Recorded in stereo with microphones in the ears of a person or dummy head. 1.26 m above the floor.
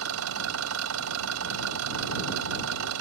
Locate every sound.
0.0 s an engine running: 80° right